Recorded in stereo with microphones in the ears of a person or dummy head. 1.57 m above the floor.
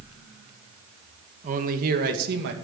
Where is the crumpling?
No crumpling in this recording.